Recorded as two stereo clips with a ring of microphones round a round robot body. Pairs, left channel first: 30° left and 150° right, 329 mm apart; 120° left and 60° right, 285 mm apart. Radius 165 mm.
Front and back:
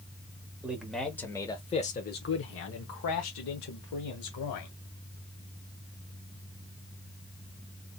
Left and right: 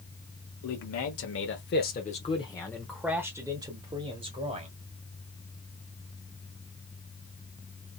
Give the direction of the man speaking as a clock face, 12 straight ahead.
8 o'clock.